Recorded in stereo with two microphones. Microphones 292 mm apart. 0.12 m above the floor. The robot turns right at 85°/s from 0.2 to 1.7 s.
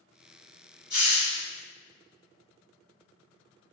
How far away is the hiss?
About 1.6 m.